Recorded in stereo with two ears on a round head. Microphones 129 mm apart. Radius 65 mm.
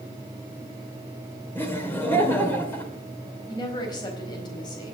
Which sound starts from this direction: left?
A woman speaking, at 3.5 s.